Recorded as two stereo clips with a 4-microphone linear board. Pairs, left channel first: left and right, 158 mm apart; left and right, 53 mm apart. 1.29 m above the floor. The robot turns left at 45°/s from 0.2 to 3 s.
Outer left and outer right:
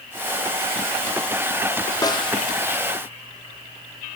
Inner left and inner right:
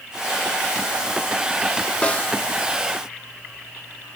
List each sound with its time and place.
2.0 s a snare drum: 20° left (ahead or behind), 0.6 m; by 2.3 s 35° left (ahead or behind), 0.6 m